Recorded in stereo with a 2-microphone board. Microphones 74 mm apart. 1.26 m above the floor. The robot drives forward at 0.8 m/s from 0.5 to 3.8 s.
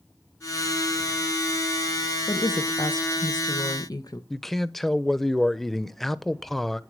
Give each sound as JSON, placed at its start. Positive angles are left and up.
{"t": 2.3, "sound": "a woman speaking", "side_deg": 60, "distance_m": 1.4}
{"t": 4.3, "sound": "a man speaking", "side_deg": 0, "distance_m": 0.7}